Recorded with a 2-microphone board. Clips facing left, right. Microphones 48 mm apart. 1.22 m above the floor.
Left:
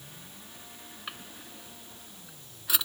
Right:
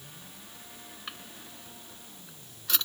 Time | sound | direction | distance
1.1 | a drawer | 10° left (ahead or behind) | ?